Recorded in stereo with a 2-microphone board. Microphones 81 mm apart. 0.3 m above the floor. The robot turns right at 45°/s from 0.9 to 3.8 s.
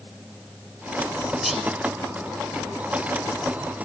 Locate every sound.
1.4 s whispering: centre (ahead or behind), 0.9 m